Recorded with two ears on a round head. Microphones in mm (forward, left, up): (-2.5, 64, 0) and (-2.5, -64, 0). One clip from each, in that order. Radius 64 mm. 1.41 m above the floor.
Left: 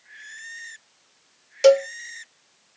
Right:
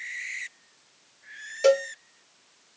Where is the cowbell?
45° left (ahead or behind), 0.9 m.